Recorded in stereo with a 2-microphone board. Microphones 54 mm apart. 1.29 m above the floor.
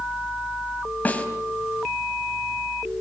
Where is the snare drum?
30° left (ahead or behind), 3.5 m.